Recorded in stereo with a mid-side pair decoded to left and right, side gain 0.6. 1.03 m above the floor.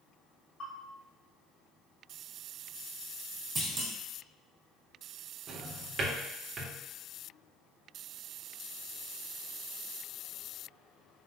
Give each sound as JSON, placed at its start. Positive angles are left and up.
{"t": 0.6, "sound": "a bell", "azimuth_deg": 50, "distance_m": 1.8}
{"t": 3.5, "sound": "a clunk", "azimuth_deg": -35, "distance_m": 1.7}
{"t": 5.5, "sound": "a drawer", "azimuth_deg": -45, "distance_m": 1.2}